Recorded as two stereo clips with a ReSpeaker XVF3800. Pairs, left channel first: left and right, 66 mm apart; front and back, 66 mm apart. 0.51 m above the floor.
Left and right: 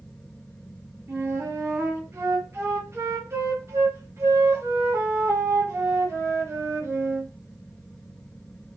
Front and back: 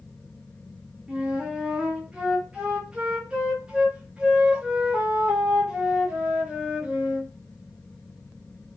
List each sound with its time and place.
1.1 s a flute: 110° right, 0.7 m